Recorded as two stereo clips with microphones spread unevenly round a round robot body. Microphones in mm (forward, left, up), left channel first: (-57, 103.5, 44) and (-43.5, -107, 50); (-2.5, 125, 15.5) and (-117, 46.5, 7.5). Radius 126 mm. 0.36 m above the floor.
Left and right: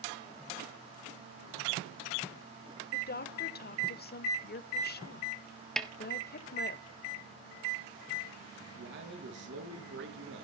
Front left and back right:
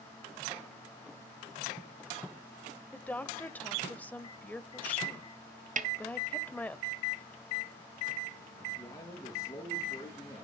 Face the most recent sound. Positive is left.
turn(degrees=-40)